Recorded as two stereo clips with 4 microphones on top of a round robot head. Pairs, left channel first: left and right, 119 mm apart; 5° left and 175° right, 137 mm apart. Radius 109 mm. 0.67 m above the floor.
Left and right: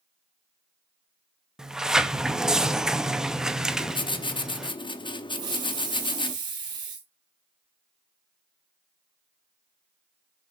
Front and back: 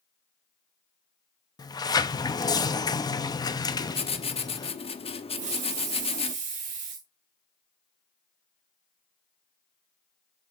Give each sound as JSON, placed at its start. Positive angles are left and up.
{"t": 1.6, "sound": "a sliding door", "azimuth_deg": -10, "distance_m": 0.8}
{"t": 3.7, "sound": "writing", "azimuth_deg": 45, "distance_m": 1.1}
{"t": 5.3, "sound": "a hiss", "azimuth_deg": -145, "distance_m": 2.5}